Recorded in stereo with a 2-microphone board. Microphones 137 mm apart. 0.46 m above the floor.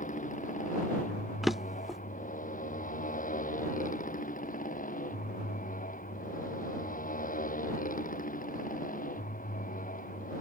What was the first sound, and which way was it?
A motorcycle, 70° left (ahead or behind).